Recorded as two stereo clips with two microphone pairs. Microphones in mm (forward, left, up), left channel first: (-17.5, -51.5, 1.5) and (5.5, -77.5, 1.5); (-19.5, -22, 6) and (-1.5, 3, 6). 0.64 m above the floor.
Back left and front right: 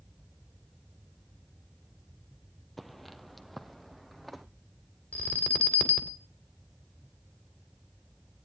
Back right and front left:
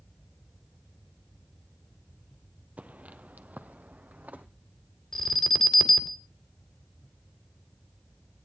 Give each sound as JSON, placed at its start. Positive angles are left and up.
{"t": 2.8, "sound": "footsteps", "azimuth_deg": 35, "distance_m": 1.0}
{"t": 5.1, "sound": "an alarm", "azimuth_deg": 165, "distance_m": 2.5}